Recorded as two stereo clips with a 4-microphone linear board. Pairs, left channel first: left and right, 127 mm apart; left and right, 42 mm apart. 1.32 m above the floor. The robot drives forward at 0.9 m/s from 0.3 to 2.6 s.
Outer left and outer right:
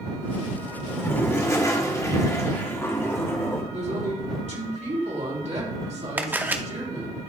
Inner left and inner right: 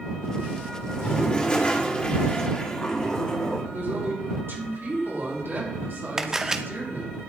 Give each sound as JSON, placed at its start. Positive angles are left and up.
{"t": 0.9, "sound": "a toilet flushing", "side_deg": 20, "distance_m": 1.3}
{"t": 3.7, "sound": "a woman speaking", "side_deg": -65, "distance_m": 3.5}
{"t": 6.2, "sound": "a camera shutter", "side_deg": -15, "distance_m": 0.6}